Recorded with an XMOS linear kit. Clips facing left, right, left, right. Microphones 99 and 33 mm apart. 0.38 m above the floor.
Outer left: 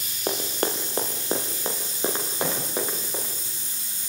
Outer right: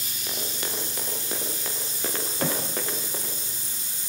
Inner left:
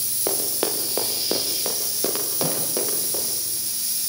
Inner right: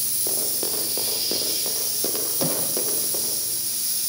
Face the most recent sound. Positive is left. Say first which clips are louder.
# outer right 1 dB, even
turn(degrees=-25)  # may be behind; listen again after turning